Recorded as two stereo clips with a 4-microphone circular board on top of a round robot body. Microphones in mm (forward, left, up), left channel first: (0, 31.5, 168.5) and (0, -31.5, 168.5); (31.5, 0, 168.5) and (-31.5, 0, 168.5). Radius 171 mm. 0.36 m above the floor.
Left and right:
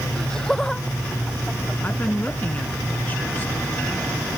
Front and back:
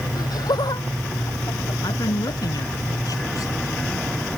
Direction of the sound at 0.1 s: 10° left.